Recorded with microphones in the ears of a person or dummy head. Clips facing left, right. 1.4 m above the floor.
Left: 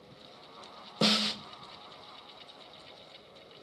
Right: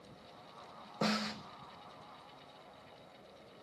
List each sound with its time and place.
1.0 s a snare drum: 55° left (ahead or behind), 0.6 m